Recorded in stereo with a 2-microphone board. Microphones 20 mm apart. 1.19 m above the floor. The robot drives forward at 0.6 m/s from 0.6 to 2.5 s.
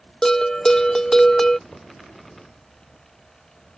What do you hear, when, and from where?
0.2 s a bell: 25° left (ahead or behind); by 1.6 s 15° left (ahead or behind)
1.7 s knocking: 80° left; by 1.9 s 75° left (ahead or behind)